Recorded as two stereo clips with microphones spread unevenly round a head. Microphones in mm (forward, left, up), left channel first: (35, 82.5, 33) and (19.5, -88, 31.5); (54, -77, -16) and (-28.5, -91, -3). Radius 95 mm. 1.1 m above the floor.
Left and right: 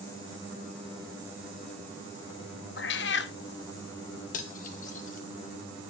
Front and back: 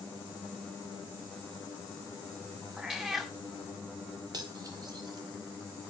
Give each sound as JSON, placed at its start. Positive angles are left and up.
{"t": 2.8, "sound": "a cat meowing", "azimuth_deg": 110, "distance_m": 0.7}
{"t": 4.3, "sound": "cutlery clinking", "azimuth_deg": 135, "distance_m": 1.2}